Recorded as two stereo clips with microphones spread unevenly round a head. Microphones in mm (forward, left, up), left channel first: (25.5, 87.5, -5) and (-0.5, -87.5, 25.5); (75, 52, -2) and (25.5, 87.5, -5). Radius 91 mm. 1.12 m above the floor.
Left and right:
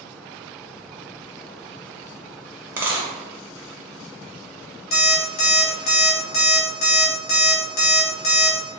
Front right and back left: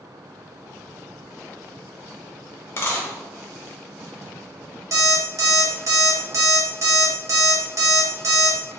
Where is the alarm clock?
125° left, 0.9 m.